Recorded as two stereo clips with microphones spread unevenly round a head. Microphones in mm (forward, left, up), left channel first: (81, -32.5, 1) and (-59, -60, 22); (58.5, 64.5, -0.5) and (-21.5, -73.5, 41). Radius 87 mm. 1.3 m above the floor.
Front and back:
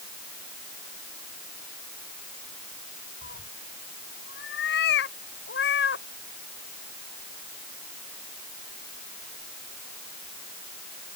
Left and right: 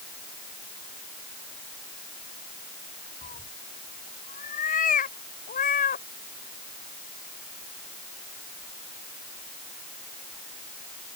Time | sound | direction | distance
3.2 | a cat meowing | 10° left | ?